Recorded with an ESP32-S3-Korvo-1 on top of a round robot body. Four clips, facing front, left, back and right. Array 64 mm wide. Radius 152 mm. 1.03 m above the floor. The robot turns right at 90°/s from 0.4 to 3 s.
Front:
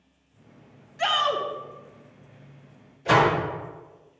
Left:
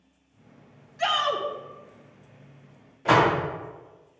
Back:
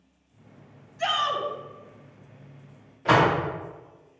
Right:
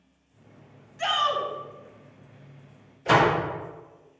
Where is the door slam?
125° left, 2.5 m.